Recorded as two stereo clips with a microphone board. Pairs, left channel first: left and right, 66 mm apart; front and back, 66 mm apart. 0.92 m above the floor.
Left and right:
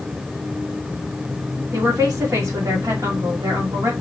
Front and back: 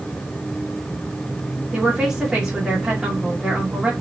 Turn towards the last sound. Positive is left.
turn(degrees=-95)